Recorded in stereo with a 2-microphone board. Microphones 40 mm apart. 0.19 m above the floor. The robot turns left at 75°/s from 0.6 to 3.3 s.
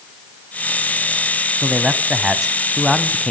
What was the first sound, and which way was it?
A man speaking, 20° right (ahead or behind).